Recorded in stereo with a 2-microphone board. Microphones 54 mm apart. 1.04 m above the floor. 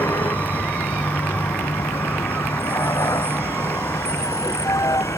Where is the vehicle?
80° left.